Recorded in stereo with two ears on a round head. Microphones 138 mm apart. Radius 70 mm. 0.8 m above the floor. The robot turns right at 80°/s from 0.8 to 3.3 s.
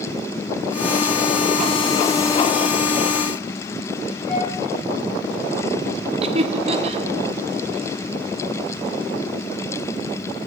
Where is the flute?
10° left (ahead or behind), 5.5 m.